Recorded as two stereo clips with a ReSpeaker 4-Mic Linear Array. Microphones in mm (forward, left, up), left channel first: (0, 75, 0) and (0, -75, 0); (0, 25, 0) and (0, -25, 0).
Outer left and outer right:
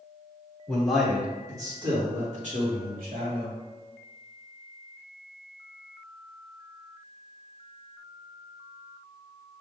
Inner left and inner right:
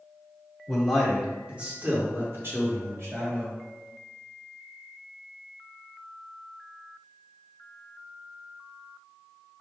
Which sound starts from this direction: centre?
A man speaking, at 0.7 s.